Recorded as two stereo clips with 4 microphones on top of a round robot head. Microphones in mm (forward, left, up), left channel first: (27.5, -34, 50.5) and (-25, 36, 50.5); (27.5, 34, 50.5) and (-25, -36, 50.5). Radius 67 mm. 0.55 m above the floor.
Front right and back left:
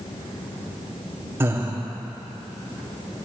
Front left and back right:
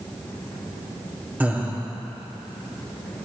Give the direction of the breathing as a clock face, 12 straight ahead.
6 o'clock.